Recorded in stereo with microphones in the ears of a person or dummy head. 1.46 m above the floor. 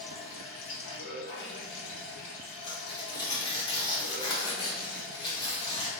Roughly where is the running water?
Left.